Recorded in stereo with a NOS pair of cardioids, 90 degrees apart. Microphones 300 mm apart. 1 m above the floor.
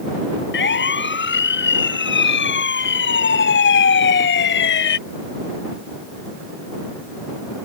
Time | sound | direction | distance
0.5 | a siren | 40° left | ?